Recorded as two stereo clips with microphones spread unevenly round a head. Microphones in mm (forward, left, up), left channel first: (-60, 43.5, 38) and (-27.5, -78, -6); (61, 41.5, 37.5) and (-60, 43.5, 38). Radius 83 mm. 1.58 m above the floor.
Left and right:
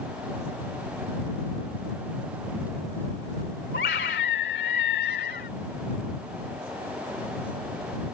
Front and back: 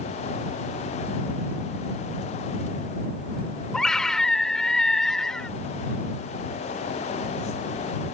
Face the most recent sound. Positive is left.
turn(degrees=85)